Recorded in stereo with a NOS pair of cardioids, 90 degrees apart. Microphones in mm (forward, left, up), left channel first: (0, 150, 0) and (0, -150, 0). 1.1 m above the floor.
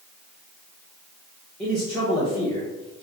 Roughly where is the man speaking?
Ahead.